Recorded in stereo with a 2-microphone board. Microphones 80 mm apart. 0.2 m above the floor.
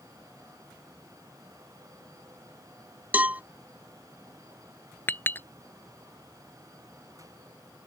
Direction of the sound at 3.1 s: 20° right (ahead or behind).